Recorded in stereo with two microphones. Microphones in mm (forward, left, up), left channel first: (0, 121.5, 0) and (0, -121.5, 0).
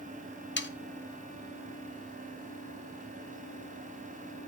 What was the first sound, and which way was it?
Sawing, 50° left (ahead or behind).